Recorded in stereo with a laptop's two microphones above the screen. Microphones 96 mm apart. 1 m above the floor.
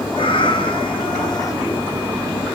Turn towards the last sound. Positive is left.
turn(degrees=35)  # may be behind; listen again after turning